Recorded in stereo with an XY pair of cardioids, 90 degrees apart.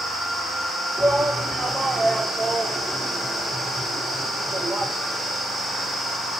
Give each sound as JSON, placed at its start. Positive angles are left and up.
{"t": 1.0, "sound": "a shout", "azimuth_deg": -25, "distance_m": 2.0}